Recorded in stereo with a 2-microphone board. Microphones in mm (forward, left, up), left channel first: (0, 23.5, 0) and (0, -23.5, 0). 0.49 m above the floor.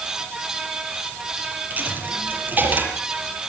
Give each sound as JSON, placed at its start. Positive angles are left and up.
{"t": 1.7, "sound": "a dropped coin", "side_deg": -35, "distance_m": 6.5}